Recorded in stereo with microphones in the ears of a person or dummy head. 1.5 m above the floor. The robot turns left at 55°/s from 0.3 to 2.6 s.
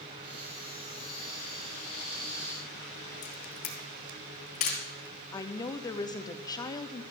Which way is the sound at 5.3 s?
20° left (ahead or behind).